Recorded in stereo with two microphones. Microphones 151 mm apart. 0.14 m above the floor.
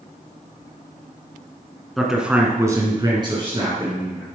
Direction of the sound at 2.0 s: Centre (ahead or behind).